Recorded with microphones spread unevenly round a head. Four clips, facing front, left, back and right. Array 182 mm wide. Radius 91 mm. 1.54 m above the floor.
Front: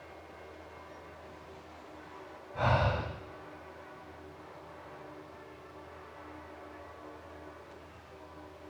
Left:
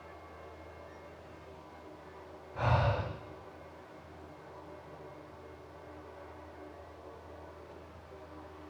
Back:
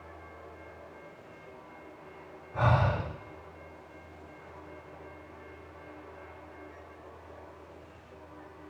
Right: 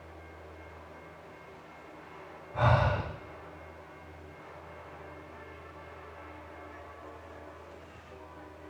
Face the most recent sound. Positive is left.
turn(degrees=-150)